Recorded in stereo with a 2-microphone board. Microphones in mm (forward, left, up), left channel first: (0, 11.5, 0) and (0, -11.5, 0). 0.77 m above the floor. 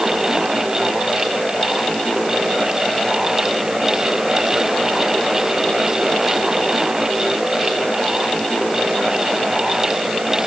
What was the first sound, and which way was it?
Only background noise.